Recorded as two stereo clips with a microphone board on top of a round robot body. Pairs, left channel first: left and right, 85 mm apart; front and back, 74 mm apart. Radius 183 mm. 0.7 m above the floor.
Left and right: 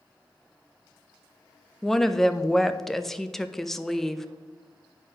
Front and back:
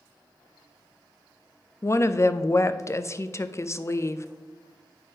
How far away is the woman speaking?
About 0.6 m.